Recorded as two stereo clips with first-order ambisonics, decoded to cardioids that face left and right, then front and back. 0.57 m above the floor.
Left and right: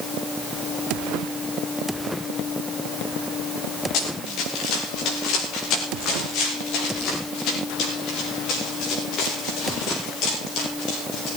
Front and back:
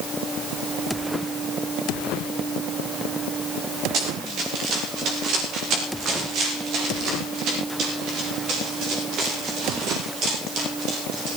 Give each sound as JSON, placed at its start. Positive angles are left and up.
{"t": 3.9, "sound": "running footsteps", "azimuth_deg": 130, "distance_m": 7.0}